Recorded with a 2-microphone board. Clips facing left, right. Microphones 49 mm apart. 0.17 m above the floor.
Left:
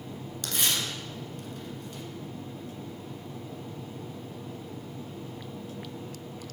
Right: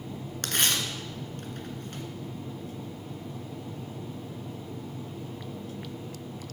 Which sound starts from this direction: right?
Tearing paper, at 0.4 s.